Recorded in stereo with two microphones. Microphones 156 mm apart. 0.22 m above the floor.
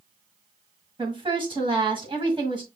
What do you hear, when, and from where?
1.0 s a woman speaking: 30° right (ahead or behind), 1.7 m